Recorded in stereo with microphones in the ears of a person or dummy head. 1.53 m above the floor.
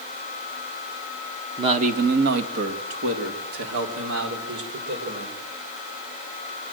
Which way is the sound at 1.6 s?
25° right (ahead or behind).